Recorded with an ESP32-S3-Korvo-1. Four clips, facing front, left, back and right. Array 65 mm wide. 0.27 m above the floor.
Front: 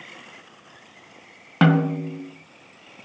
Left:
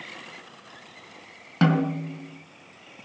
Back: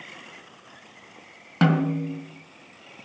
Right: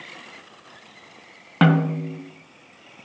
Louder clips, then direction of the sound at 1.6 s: Right 3 dB, front 3 dB; 55° right.